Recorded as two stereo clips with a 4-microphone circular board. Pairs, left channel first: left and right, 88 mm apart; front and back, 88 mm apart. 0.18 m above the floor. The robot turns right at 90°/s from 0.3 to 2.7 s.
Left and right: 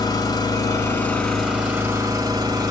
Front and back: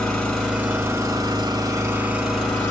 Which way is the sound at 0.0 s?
85° left.